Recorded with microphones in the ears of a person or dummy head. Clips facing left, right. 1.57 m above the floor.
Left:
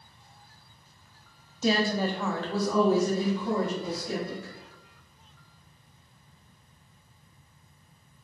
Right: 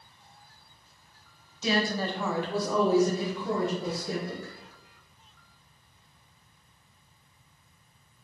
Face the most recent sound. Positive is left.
turn(degrees=-60)  # may be behind; listen again after turning